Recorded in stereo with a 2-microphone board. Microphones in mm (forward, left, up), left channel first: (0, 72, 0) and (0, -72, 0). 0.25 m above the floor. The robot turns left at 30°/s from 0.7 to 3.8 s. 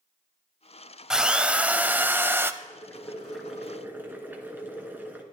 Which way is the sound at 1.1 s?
5° right (ahead or behind).